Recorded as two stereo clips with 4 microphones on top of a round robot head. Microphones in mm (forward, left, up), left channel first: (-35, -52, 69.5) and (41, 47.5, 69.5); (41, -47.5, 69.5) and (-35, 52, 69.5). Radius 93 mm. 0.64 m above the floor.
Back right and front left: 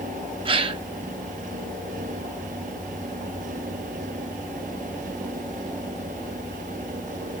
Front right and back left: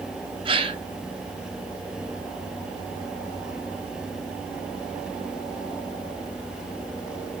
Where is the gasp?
90° left, 1.4 m.